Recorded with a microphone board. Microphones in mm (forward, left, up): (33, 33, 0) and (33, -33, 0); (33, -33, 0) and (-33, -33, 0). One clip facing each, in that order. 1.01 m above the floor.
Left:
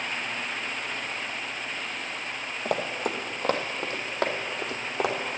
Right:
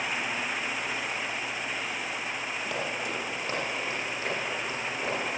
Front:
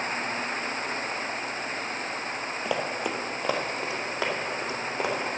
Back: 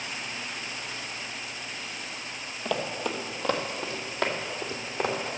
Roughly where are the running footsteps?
Left.